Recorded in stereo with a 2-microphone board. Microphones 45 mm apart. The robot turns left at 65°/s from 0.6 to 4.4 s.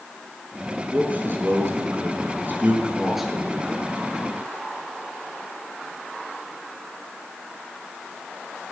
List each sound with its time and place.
0.9 s a man speaking: 30° right (ahead or behind), 4 m; by 3.9 s 40° left (ahead or behind), 4 m